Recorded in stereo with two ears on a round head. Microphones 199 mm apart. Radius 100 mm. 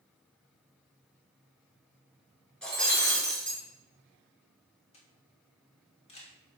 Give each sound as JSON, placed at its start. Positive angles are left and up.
{"t": 2.6, "sound": "breaking glass", "side_deg": 5, "distance_m": 5.0}
{"t": 4.9, "sound": "a camera shutter", "side_deg": 30, "distance_m": 2.5}